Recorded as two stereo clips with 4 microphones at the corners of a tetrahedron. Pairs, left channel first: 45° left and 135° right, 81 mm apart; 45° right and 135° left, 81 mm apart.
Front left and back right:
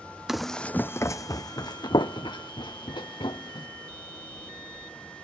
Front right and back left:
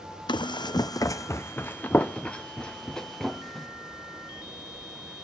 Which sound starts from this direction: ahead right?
Running footsteps, at 0.3 s.